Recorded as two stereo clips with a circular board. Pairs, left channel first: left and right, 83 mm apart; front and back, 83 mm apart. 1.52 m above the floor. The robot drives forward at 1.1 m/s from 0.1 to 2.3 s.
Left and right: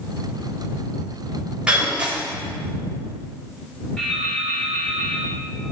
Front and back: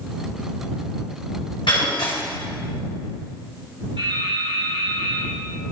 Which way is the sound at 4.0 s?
170° left.